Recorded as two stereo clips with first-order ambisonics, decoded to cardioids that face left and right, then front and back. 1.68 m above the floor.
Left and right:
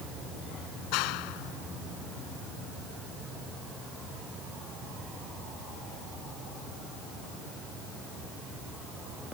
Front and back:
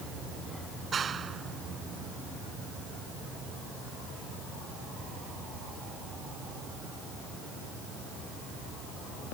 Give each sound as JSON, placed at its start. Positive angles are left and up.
{"t": 0.9, "sound": "a clap", "azimuth_deg": 110}